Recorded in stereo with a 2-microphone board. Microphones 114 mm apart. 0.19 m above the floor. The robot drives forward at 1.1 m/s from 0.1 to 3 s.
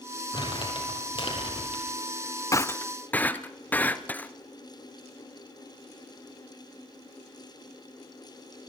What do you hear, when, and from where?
0.3 s crumpling: 45° left (ahead or behind), 7.5 m; by 1.8 s 50° left (ahead or behind), 6.5 m
2.5 s breaking glass: 30° left (ahead or behind), 0.5 m; by 4.3 s 15° left (ahead or behind), 1.0 m